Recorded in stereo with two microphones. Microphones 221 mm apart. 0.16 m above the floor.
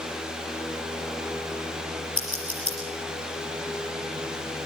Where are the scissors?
75° left (ahead or behind), 5.5 m.